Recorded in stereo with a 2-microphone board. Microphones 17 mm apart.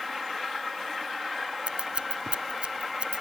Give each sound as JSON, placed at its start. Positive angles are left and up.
{"t": 1.7, "sound": "scissors", "side_deg": -65}